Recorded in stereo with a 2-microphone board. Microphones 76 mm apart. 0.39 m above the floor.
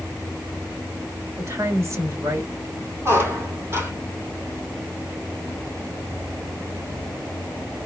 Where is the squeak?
35° right (ahead or behind), 1.9 m.